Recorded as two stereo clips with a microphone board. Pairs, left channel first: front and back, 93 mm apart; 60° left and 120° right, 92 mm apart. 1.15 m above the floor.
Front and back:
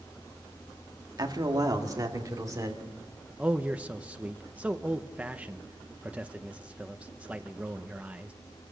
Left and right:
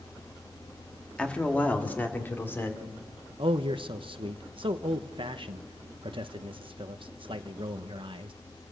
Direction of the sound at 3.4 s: 105° right.